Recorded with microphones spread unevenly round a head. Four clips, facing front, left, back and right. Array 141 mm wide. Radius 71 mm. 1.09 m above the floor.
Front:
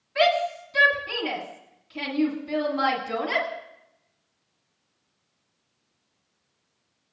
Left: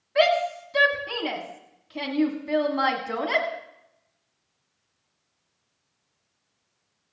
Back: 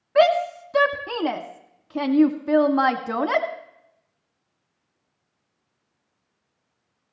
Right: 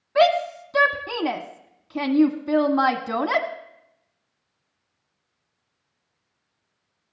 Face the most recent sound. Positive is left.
turn(degrees=-155)